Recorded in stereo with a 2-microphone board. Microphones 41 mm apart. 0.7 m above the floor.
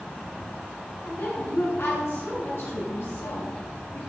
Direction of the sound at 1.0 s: 75° left (ahead or behind).